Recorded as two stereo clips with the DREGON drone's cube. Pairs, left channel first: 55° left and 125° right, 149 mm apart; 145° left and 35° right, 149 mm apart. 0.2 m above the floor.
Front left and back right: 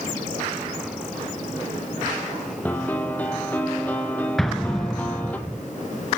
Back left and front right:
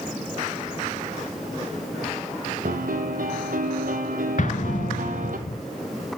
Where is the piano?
25° right, 1.1 m.